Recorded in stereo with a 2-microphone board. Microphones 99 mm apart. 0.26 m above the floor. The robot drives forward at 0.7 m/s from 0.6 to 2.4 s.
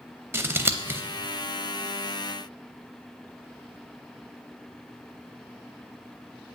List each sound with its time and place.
0.3 s scissors: 20° right (ahead or behind), 0.6 m